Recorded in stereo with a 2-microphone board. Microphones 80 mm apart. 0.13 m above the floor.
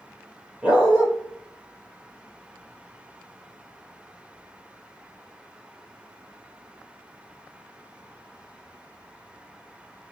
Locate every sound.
0.6 s a dog barking: 15° right (ahead or behind), 1.2 m